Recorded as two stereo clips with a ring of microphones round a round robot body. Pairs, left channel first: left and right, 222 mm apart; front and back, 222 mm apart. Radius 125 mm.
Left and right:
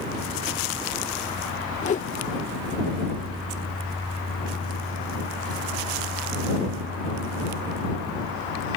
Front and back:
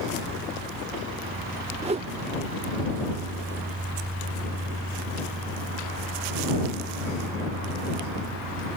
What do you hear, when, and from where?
1.8 s a whoosh: 130° left